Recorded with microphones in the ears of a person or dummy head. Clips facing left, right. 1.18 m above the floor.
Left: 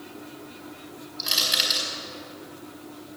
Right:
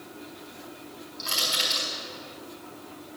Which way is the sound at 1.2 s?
15° left (ahead or behind).